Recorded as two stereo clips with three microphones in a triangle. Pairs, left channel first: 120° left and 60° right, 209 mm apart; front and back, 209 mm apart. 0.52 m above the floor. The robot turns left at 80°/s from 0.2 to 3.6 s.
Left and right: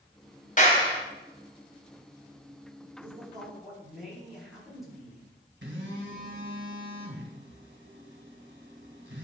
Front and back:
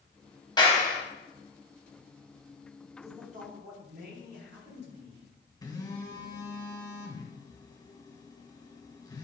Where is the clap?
70° left, 2.5 m; by 1.0 s 35° left, 2.5 m.